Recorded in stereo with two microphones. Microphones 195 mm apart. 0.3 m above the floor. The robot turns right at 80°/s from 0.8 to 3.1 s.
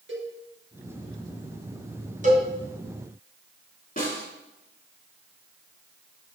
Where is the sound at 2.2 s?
40° right (ahead or behind), 2.5 m; by 2.5 s 55° right (ahead or behind), 2.5 m.